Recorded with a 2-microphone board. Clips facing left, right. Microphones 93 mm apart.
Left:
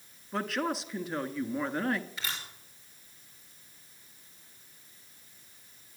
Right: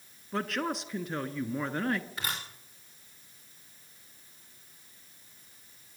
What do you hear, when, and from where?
0.3 s a woman speaking: centre (ahead or behind), 1.4 m
2.2 s a camera shutter: 45° right (ahead or behind), 6 m